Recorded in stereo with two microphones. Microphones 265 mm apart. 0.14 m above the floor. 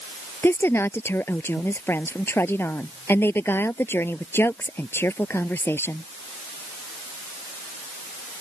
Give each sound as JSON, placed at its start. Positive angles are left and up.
{"t": 0.4, "sound": "a woman speaking", "side_deg": 10}